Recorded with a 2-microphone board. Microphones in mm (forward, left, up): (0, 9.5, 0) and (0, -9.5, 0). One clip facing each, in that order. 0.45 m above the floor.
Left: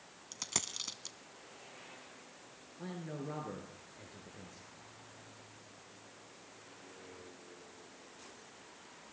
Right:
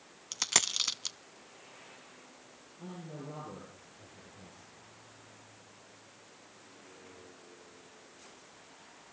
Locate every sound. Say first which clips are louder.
0.3 s a dropped coin: right 10 dB; 50° right (ahead or behind), 0.6 m
2.8 s a man speaking: left 2 dB; 85° left, 6.5 m